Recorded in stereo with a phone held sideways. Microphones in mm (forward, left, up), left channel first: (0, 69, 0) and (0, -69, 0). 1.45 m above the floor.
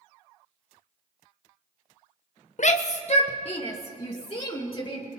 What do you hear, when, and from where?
2.6 s a shout: 55° left (ahead or behind), 0.5 m; by 5.0 s 40° left (ahead or behind), 2 m